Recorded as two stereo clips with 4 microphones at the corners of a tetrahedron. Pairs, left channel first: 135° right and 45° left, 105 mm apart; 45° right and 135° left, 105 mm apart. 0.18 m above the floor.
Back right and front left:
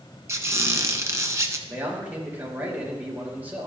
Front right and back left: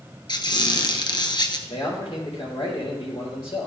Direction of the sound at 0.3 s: 15° right.